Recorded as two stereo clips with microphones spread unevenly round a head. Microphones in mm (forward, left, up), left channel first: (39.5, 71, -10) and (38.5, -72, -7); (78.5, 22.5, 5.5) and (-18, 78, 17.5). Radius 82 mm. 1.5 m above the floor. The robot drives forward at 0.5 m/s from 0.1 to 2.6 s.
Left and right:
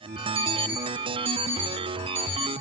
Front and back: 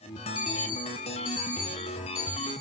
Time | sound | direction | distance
0.3 | an alarm clock | 40° right | 3 m